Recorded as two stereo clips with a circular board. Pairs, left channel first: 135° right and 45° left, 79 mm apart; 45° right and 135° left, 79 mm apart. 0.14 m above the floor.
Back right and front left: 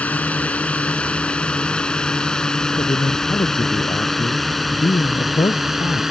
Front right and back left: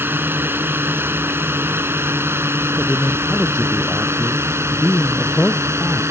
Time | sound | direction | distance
0.0 | a drone | 165° left | ?
2.8 | a man speaking | 130° right | ?